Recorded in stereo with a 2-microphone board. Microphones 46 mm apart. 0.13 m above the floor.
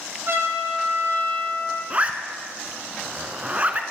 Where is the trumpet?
65° right (ahead or behind), 6.5 m.